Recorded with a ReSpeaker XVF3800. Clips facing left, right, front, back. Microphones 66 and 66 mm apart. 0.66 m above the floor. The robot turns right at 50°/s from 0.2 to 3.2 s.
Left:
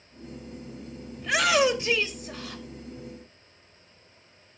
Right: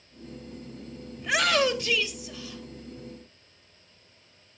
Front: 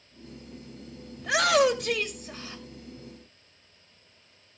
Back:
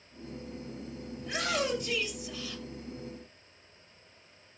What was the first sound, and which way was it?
A shout, 5° right.